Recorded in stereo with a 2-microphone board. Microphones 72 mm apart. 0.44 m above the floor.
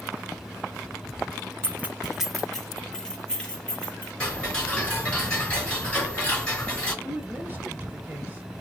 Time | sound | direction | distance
1.6 | keys jangling | 30° right (ahead or behind) | 0.6 m
4.2 | ticking | 15° left (ahead or behind) | 3 m
7.0 | a woman speaking | 25° right (ahead or behind) | 1.0 m